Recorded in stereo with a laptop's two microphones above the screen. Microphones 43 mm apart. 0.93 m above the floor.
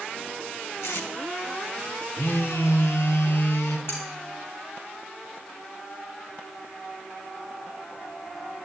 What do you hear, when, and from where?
0.8 s tape being pulled: 80° left, 2.5 m
2.2 s a phone buzzing: 70° left (ahead or behind), 1.7 m
3.9 s cutlery clinking: 70° left (ahead or behind), 4 m